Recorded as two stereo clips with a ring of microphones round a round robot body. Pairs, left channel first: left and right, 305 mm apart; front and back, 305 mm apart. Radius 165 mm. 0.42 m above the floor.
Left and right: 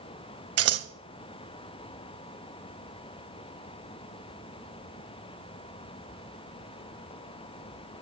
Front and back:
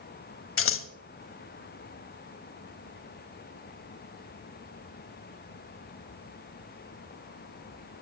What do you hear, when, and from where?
0.6 s scissors: 50° right, 1.2 m